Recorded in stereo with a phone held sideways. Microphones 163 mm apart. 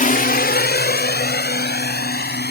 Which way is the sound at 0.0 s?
55° left (ahead or behind).